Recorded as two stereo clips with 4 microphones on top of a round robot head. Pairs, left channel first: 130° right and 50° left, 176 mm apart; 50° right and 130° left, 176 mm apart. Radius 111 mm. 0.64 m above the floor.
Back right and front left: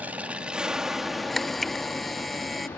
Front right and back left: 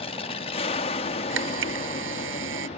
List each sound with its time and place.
0.0 s an aircraft: 30° right; by 2.8 s 60° right
1.3 s a camera shutter: 140° left